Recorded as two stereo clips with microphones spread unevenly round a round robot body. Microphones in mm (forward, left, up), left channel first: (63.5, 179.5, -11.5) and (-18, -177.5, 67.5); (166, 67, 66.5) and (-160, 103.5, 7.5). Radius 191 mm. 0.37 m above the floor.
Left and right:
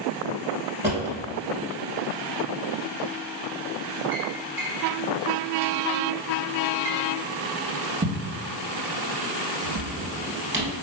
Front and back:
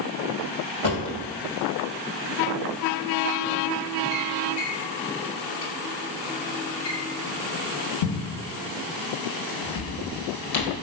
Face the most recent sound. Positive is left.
turn(degrees=-25)